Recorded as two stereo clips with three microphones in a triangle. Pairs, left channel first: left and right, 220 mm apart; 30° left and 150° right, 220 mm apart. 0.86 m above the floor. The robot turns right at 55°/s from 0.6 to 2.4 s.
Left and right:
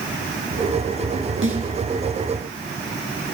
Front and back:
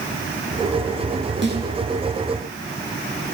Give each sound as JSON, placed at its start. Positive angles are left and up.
{"t": 1.4, "sound": "a snare drum", "azimuth_deg": -115, "distance_m": 9.5}